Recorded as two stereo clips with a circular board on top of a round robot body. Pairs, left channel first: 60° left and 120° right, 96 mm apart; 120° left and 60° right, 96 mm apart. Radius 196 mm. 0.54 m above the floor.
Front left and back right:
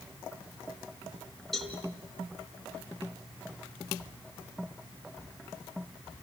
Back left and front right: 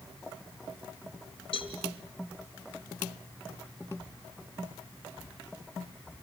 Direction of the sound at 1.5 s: 150° left.